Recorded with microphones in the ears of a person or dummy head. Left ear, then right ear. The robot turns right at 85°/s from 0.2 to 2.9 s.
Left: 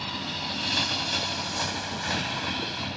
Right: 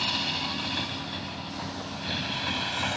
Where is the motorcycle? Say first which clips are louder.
Right 4 dB; 25° right (ahead or behind); by 3.0 s 40° right (ahead or behind).